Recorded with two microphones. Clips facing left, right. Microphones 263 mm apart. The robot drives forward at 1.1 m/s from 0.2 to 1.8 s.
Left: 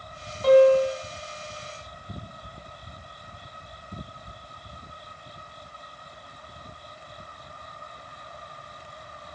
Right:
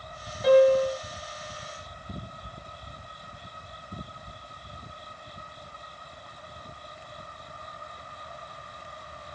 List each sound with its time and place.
0.4 s a piano: centre (ahead or behind), 2.5 m; by 1.0 s 5° left (ahead or behind), 1.8 m